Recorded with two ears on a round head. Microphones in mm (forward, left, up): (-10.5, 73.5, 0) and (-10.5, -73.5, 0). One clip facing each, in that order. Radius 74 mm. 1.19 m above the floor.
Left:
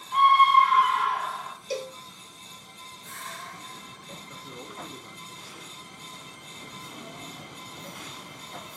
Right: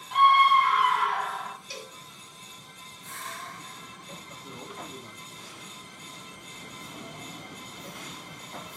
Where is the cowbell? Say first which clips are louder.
Left 11 dB; 30° left (ahead or behind), 1.7 m.